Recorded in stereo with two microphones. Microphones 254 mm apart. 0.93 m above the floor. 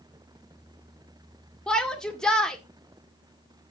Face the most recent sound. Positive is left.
turn(degrees=5)  # may be behind; listen again after turning